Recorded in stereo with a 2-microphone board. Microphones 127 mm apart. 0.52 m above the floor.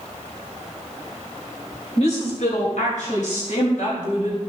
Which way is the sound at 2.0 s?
60° left (ahead or behind).